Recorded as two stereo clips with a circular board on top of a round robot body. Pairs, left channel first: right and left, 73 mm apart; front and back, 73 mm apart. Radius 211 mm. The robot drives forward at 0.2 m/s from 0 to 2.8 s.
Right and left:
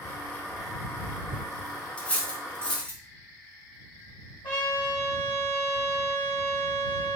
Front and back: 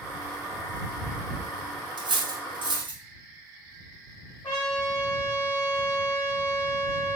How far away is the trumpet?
About 0.6 m.